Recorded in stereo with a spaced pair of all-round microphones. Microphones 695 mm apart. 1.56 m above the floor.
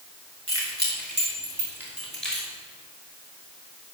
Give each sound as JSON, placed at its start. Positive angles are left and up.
{"t": 0.5, "sound": "keys jangling", "side_deg": -15, "distance_m": 4.5}